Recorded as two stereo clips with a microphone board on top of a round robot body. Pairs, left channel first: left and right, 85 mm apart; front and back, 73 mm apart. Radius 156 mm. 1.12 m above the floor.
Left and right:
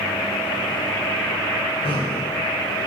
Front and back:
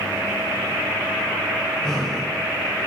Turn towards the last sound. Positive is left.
turn(degrees=80)